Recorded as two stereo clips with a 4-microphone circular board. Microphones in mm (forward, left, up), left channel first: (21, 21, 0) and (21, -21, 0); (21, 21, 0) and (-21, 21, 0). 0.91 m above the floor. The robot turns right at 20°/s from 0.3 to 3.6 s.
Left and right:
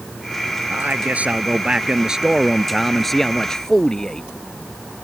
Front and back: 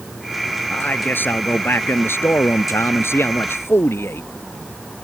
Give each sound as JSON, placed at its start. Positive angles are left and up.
{"t": 0.7, "sound": "a man speaking", "azimuth_deg": -45}